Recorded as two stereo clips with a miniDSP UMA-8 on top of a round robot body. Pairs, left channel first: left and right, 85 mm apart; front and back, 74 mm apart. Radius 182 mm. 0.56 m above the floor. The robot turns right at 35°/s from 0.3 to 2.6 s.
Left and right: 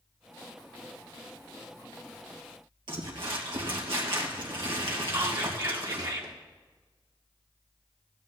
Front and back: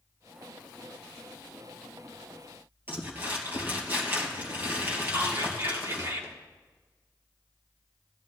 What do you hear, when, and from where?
2.9 s crumpling: 120° right, 2.5 m
5.1 s whispering: 130° right, 2.5 m